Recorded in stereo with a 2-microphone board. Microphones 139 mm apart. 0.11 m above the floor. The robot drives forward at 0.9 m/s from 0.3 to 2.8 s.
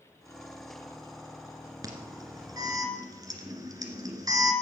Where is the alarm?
30° right (ahead or behind), 2 m; by 4.5 s 25° right (ahead or behind), 2 m.